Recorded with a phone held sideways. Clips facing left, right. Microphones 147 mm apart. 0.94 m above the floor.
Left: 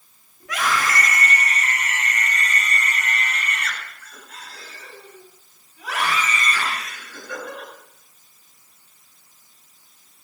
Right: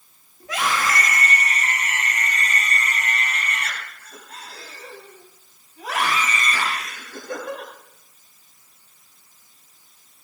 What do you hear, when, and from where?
0.4 s a scream: 30° right (ahead or behind), 9 m; by 7.7 s 45° right (ahead or behind), 12.5 m